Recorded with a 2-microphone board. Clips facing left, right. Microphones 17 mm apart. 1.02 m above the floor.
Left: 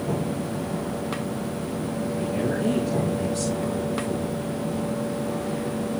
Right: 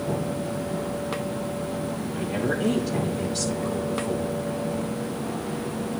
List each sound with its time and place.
2.1 s a woman speaking: 25° right (ahead or behind), 3 m